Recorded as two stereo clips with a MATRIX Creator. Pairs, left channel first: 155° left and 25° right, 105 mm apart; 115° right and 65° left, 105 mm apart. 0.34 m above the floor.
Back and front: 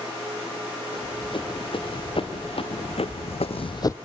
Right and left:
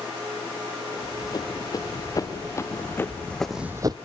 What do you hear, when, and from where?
0.9 s running footsteps: 165° right, 3.5 m; by 4.0 s 100° left, 0.6 m